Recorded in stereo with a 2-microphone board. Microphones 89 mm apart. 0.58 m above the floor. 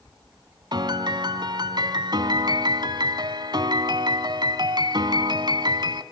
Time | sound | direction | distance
0.7 | a piano | 55° right (ahead or behind) | 1.4 m